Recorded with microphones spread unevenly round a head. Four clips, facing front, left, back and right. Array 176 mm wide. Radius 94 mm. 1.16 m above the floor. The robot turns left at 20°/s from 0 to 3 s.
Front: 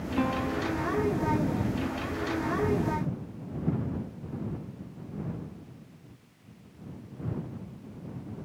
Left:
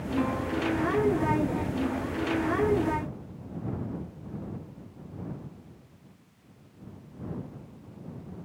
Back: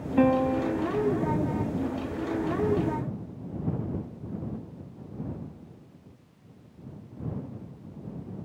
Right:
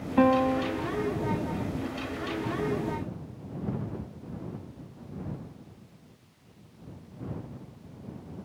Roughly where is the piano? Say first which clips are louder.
Right 8 dB, back 7 dB; behind right.